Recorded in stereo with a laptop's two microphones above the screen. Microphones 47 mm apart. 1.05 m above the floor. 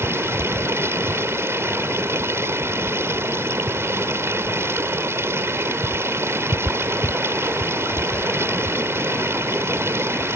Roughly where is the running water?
Right.